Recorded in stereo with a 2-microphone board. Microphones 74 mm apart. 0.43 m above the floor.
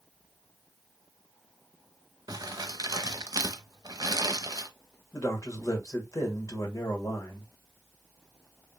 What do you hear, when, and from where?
2.3 s crumpling: 55° right (ahead or behind), 0.6 m
5.1 s a man speaking: 40° left (ahead or behind), 1.3 m